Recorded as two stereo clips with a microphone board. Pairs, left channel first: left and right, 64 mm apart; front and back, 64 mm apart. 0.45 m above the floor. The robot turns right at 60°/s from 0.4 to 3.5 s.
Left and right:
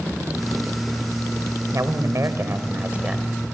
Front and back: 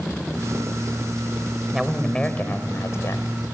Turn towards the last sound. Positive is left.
turn(degrees=5)